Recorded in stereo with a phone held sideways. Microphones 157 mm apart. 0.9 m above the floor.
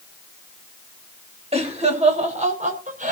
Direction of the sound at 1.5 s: 40° right (ahead or behind).